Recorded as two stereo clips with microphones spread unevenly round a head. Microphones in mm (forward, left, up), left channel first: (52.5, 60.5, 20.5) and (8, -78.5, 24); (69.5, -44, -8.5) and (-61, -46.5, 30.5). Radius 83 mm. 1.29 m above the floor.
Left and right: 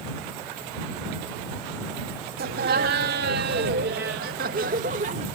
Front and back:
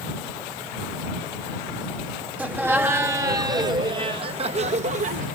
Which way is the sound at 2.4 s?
95° right.